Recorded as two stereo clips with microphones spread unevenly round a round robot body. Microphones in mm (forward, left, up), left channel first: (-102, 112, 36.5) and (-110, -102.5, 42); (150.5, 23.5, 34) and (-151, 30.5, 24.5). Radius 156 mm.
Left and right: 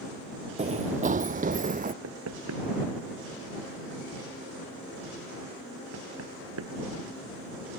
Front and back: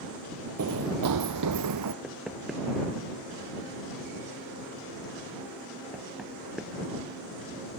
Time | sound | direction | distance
0.6 | running footsteps | 145° right | ?
2.0 | knocking | 90° right | ?